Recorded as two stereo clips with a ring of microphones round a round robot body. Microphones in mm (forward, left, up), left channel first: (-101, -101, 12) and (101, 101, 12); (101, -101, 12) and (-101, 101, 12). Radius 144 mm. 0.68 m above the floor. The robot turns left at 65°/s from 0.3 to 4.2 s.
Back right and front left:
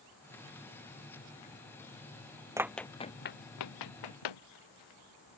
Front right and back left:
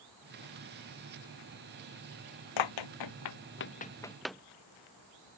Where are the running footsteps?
35° right; by 4.4 s 135° right.